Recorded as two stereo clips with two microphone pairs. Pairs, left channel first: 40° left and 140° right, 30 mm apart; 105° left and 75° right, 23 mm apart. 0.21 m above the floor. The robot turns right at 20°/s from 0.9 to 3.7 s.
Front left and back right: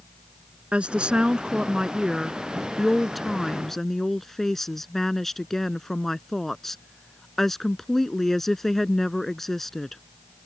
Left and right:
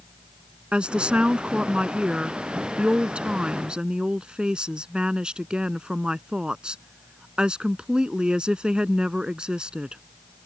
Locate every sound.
0.7 s a woman speaking: 100° right; by 10.0 s 40° right